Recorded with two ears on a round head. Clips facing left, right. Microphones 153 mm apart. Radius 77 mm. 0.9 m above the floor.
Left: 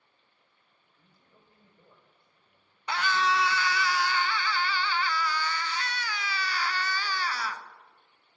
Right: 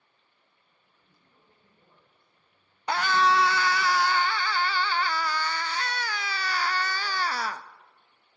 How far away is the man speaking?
About 4 m.